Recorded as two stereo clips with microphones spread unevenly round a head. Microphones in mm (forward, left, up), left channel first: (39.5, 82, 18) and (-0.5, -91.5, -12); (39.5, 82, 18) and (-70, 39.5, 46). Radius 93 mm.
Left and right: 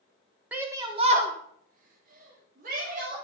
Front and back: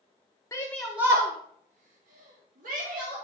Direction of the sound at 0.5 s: 30° right.